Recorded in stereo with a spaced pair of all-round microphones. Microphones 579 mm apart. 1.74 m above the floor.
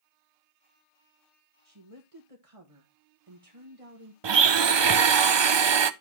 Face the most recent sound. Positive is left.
turn(degrees=-50)  # may be behind; listen again after turning